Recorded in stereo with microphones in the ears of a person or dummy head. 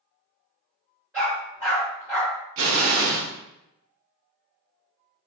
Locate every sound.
1.1 s a dog barking: 15° right (ahead or behind), 2.0 m
2.6 s an explosion: 65° right (ahead or behind), 0.7 m